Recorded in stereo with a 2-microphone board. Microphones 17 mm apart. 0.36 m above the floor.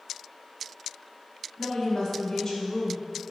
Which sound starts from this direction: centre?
A woman speaking, at 1.6 s.